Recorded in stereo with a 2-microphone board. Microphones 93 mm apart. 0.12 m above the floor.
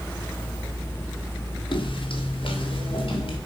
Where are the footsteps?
60° left (ahead or behind), 2.0 m; by 3.4 s 65° left (ahead or behind), 4 m.